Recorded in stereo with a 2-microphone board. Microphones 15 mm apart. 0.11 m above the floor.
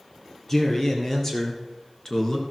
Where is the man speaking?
30° left (ahead or behind), 3 m; by 2.4 s 25° left (ahead or behind), 1.5 m.